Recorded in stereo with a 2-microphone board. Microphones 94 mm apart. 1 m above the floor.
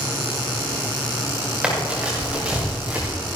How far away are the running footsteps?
About 4.5 m.